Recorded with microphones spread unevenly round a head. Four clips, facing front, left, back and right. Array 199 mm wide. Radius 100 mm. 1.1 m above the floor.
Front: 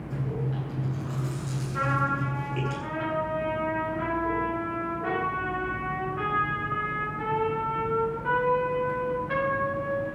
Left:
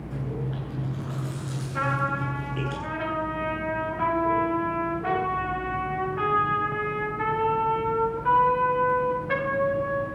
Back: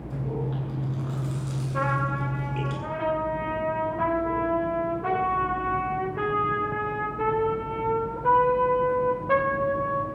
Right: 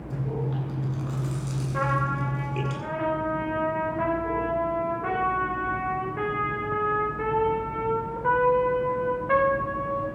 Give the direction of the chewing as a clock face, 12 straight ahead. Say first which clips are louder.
Right 3 dB, back 1 dB; 3 o'clock.